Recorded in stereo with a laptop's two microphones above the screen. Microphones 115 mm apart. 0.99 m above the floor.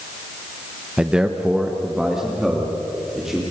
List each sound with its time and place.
1.0 s a man speaking: 10° right (ahead or behind), 0.9 m; by 3.4 s 5° right (ahead or behind), 3.5 m